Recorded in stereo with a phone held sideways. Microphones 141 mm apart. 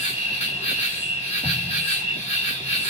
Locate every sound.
0.0 s an insect: 50° left (ahead or behind), 1.5 m
1.4 s an explosion: 40° left (ahead or behind), 0.9 m